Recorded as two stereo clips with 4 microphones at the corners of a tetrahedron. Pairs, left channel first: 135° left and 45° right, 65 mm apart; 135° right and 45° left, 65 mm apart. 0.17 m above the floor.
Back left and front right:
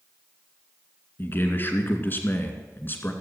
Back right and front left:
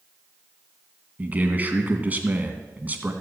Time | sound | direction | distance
1.2 | a man speaking | 95° left | 2 m